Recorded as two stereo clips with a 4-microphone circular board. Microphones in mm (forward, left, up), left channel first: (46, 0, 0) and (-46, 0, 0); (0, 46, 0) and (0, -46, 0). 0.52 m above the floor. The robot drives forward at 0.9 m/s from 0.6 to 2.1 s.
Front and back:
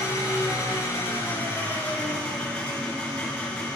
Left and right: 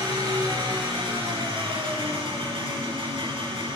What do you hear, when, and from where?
0.0 s an engine running: 60° right, 4 m; by 3.8 s 80° right, 3.5 m